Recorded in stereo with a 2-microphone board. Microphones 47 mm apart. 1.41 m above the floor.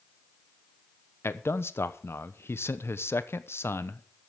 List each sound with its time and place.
1.2 s a man speaking: 70° left (ahead or behind), 1.0 m